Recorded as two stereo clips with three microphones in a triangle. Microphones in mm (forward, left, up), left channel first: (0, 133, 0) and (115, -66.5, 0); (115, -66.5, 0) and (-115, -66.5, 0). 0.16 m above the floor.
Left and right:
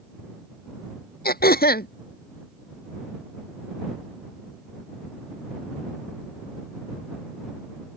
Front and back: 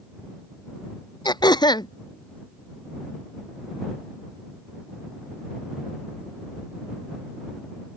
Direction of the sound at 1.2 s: 70° left.